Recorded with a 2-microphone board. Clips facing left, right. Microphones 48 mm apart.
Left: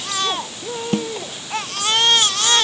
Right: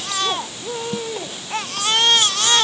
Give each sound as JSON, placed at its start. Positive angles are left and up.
{"t": 0.9, "sound": "a snare drum", "side_deg": 60}